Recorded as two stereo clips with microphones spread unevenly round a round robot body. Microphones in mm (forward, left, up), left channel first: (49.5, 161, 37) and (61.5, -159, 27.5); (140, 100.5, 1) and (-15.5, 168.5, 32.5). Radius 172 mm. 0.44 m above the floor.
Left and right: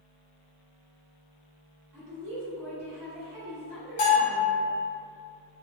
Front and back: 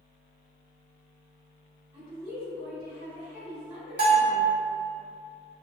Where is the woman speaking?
120° right, 1.9 m.